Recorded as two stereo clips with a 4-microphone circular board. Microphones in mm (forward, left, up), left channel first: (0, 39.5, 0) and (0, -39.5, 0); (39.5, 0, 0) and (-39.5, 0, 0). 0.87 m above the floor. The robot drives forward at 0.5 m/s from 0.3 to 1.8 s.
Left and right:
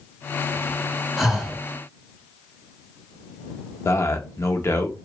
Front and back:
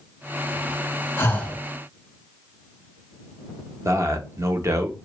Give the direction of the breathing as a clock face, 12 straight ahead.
12 o'clock.